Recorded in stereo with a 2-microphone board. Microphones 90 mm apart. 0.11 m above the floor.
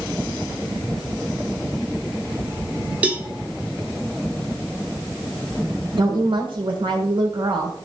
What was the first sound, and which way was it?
A cowbell, 15° right (ahead or behind).